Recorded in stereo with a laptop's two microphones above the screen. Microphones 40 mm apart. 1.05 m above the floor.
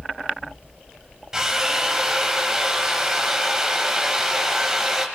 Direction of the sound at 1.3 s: 15° right (ahead or behind).